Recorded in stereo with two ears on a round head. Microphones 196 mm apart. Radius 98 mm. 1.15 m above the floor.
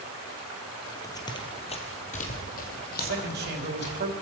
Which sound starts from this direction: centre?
Running footsteps, at 1.0 s.